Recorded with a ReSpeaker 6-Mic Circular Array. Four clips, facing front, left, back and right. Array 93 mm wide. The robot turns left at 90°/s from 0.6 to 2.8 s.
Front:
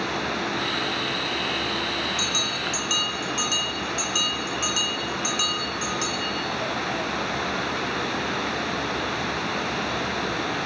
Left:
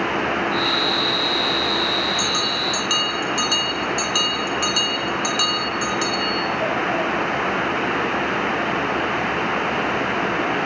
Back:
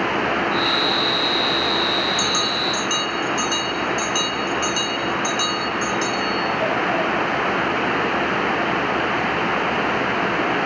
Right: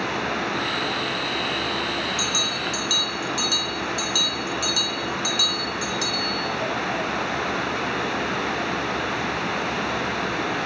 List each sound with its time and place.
2.2 s a bell: 150° left, 2.0 m; by 6.5 s 90° left, 2.0 m